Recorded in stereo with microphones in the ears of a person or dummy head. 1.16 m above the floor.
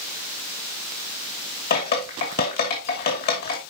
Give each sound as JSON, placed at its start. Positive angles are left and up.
{"t": 1.7, "sound": "dripping", "side_deg": 45, "distance_m": 2.5}